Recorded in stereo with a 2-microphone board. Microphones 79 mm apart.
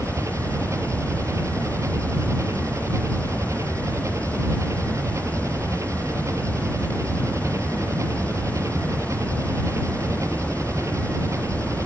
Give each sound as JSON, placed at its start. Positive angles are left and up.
{"t": 0.0, "sound": "an engine running", "side_deg": -40}